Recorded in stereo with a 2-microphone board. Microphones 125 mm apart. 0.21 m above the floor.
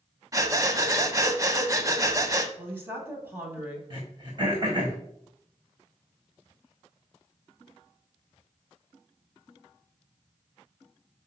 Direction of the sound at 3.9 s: 40° right (ahead or behind).